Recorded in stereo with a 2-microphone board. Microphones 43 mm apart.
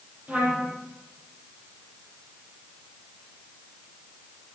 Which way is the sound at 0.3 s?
30° right (ahead or behind).